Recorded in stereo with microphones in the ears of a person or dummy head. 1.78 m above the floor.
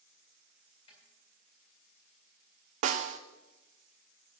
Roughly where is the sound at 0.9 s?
Left.